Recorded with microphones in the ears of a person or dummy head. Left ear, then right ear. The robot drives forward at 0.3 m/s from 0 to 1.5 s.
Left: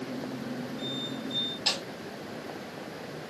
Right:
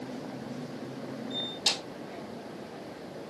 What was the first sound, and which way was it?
A snare drum, 15° right (ahead or behind).